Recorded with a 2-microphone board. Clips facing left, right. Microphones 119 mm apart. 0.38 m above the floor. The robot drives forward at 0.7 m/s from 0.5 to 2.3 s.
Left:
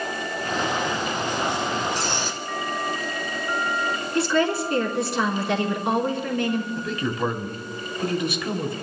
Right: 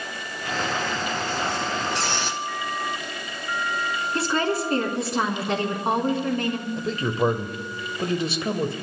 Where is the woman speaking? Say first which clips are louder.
Left 3 dB; 35° right (ahead or behind), 3.5 m.